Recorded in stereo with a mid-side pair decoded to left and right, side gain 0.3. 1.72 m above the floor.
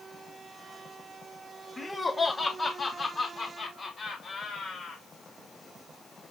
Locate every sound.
1.8 s laughter: 30° left, 2.5 m; by 5.0 s 80° left, 5 m